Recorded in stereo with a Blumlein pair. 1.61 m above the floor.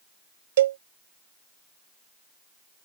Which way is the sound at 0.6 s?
60° right.